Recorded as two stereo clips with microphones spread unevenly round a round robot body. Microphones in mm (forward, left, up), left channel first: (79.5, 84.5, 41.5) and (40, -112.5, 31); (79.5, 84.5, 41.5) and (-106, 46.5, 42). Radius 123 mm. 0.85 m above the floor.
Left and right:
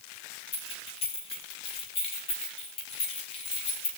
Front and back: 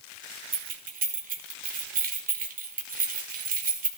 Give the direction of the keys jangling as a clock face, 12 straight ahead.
7 o'clock.